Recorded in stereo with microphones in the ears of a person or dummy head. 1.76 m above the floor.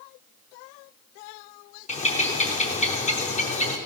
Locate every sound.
1.9 s a bird: 40° left (ahead or behind), 0.8 m